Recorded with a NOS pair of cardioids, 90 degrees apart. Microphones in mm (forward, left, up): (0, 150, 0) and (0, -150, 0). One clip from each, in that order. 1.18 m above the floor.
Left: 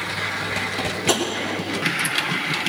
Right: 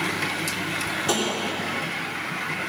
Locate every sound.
1.1 s tapping: 30° left, 3 m